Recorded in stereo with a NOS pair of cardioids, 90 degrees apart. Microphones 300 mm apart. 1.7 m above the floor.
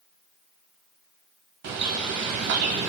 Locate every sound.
1.6 s a bird: 60° right, 1.0 m